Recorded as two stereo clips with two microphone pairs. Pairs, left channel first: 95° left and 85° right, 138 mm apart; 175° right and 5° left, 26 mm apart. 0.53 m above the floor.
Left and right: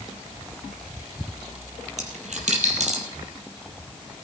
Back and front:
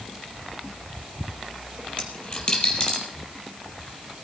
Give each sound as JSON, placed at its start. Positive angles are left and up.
{"t": 2.0, "sound": "a dropped coin", "azimuth_deg": -115, "distance_m": 4.0}